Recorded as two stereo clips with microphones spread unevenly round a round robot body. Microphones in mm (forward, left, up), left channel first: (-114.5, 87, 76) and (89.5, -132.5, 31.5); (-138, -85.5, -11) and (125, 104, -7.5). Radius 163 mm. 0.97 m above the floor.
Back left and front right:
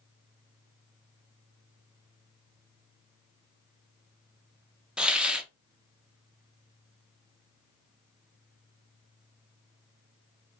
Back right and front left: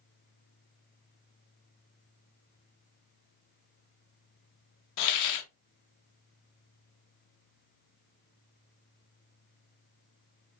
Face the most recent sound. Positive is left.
turn(degrees=-130)